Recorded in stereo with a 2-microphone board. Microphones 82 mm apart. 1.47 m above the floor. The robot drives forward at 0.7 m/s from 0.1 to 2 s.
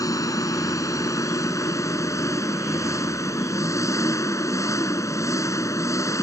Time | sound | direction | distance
0.0 | an engine running | 45° left (ahead or behind) | ?